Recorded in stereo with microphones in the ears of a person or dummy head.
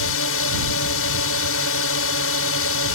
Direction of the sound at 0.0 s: 85° left.